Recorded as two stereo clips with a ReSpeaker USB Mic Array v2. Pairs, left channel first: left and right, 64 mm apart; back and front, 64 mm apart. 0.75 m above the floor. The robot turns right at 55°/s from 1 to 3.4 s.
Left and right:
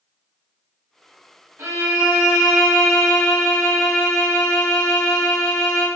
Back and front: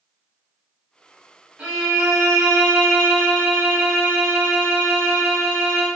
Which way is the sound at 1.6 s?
70° right.